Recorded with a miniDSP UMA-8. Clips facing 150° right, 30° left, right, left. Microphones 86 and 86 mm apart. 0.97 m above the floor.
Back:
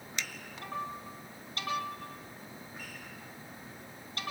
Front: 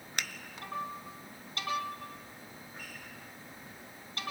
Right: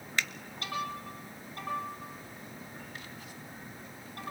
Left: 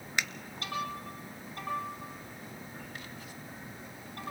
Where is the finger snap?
20° left, 0.8 m.